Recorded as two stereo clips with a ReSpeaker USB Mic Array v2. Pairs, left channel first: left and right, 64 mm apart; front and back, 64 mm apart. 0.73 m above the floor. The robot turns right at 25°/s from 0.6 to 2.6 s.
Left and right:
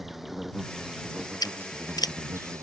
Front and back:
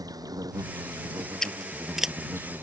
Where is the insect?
175° right; by 2.6 s 125° right.